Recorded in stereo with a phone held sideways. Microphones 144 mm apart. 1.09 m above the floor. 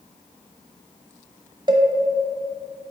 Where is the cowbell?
30° right (ahead or behind), 0.7 m.